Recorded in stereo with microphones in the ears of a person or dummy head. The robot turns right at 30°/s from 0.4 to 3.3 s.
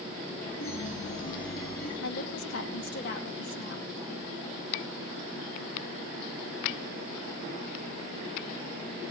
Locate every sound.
0.6 s a chime: 75° left, 7.5 m; by 1.9 s 115° left, 7.5 m
2.0 s a woman speaking: 85° left, 2 m; by 3.9 s 125° left, 2 m